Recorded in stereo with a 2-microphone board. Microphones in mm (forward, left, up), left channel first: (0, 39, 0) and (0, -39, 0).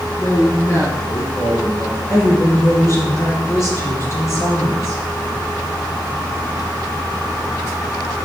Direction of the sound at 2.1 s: 35° left (ahead or behind).